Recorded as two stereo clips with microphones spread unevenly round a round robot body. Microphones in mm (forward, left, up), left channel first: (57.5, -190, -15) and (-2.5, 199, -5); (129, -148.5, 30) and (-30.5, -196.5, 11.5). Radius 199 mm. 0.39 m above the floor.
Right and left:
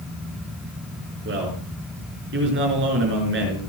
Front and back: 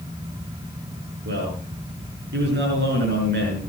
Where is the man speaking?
160° left, 5.5 m.